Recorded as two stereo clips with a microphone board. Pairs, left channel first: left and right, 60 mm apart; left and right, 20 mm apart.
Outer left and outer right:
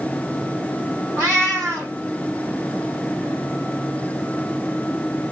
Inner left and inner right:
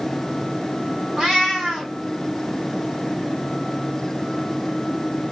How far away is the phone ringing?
I don't hear a phone ringing.